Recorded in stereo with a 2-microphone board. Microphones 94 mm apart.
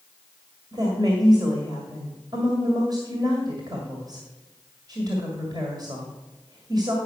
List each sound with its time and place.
0.7 s a woman speaking: 45° right (ahead or behind), 1.9 m